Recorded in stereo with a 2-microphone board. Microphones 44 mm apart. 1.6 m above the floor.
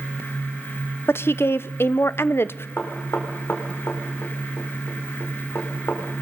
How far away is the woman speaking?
About 0.7 m.